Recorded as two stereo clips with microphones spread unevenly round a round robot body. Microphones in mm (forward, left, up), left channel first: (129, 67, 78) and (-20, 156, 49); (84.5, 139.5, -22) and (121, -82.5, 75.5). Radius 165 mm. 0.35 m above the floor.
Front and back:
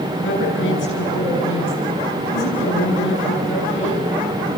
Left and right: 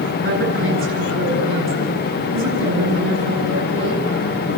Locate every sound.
0.2 s a woman speaking: 45° right, 7.5 m